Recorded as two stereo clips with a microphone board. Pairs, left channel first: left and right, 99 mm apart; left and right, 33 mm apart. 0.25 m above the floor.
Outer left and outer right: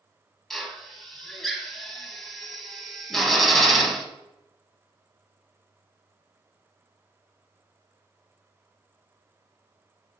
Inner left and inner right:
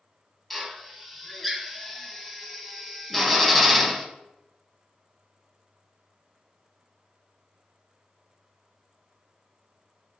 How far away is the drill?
About 0.8 m.